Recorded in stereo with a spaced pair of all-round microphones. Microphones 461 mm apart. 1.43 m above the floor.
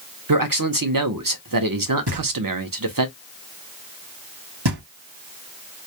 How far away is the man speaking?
About 0.6 m.